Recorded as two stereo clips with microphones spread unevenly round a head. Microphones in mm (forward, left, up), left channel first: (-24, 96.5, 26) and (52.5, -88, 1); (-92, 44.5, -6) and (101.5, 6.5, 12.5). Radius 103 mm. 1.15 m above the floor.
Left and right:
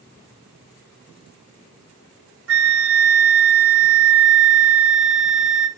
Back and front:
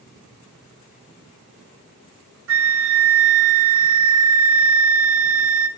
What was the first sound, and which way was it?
A flute, 45° right.